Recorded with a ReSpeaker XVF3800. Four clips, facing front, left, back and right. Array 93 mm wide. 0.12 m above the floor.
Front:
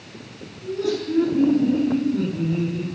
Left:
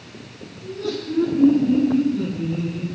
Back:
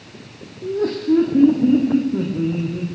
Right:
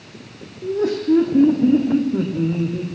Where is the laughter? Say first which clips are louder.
Right 8 dB, back 4 dB; 130° right, 7.5 m; by 2.9 s 120° right, 7.5 m.